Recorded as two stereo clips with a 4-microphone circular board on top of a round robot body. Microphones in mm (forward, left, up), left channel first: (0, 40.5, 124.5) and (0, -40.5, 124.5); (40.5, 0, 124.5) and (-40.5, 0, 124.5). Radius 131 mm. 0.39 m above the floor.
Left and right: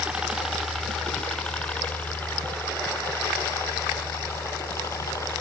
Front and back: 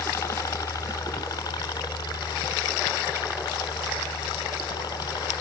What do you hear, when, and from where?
0.0 s a helicopter: 25° right; by 5.4 s 35° left